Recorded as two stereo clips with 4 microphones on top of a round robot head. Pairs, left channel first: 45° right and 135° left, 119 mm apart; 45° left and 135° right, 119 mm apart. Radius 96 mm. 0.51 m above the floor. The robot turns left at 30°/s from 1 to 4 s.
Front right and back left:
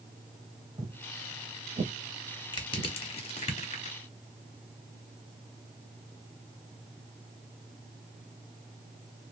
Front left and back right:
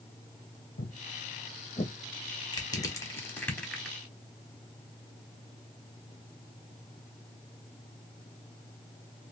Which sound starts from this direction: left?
Footsteps, at 0.8 s.